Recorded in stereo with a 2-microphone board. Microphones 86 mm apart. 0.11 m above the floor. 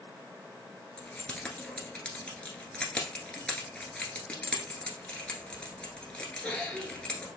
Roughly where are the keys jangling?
Centre.